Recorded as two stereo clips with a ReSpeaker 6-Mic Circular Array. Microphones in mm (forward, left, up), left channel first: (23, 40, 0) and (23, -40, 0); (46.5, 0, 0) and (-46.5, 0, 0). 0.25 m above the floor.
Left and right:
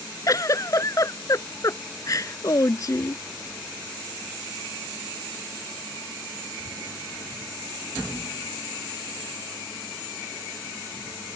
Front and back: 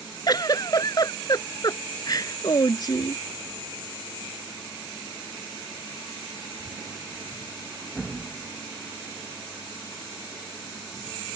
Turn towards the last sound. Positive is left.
turn(degrees=45)